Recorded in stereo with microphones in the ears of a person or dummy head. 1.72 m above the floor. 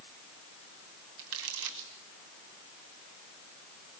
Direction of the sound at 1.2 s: 75° right (ahead or behind).